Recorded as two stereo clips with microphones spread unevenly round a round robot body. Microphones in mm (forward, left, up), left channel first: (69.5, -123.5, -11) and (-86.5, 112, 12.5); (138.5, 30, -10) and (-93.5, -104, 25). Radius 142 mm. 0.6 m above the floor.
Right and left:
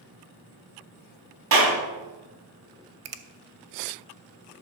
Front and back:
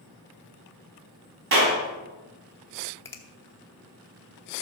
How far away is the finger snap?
About 0.8 m.